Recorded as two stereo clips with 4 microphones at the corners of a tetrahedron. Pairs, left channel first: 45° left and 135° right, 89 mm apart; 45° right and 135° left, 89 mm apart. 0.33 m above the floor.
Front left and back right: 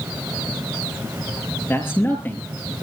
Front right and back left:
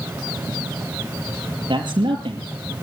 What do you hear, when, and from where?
1.7 s a man speaking: 110° left, 6 m; by 2.7 s 115° left, 6.5 m